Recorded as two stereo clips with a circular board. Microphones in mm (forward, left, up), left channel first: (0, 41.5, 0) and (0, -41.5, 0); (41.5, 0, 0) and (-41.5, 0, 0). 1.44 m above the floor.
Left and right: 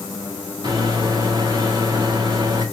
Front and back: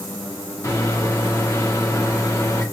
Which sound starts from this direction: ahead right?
A microwave, at 0.6 s.